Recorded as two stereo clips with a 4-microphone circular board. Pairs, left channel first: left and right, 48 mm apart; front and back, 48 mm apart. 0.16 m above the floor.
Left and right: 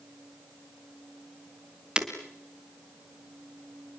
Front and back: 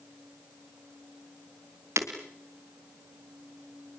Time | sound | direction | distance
2.0 | breaking glass | 160° right | 3.5 m